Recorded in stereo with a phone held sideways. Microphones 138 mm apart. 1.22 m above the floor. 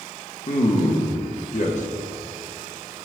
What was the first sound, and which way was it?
A man speaking, 60° left (ahead or behind).